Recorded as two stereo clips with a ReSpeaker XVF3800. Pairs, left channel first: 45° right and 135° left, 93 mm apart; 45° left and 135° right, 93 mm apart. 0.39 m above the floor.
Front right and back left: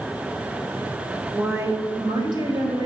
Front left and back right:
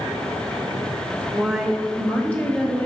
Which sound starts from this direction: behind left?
A woman speaking, at 1.3 s.